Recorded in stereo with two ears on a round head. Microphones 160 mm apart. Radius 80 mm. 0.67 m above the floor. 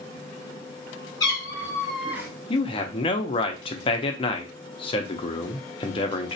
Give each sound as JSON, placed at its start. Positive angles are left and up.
{"t": 1.2, "sound": "a cat meowing", "side_deg": 25, "distance_m": 1.1}
{"t": 2.5, "sound": "a man speaking", "side_deg": 30, "distance_m": 0.5}